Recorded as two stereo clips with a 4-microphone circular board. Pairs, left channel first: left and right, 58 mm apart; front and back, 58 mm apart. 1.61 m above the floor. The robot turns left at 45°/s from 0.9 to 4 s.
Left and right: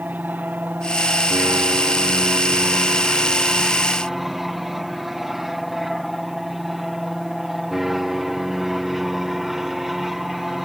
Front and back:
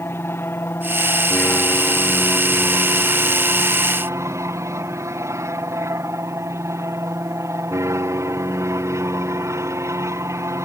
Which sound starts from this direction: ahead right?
An aircraft, at 0.0 s.